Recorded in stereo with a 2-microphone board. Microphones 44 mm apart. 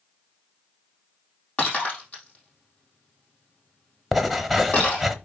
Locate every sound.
1.6 s breaking glass: 30° left (ahead or behind), 4 m
4.1 s writing: centre (ahead or behind), 0.9 m